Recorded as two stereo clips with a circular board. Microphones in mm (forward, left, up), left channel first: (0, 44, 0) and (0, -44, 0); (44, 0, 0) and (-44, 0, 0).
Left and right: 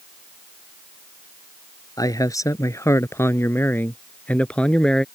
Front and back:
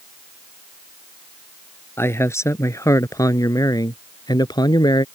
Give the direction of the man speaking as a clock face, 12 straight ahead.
10 o'clock.